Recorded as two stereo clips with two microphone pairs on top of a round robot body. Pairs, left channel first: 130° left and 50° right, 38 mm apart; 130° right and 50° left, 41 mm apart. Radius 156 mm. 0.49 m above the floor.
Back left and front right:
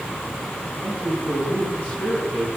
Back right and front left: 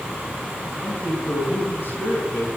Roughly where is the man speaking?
Behind.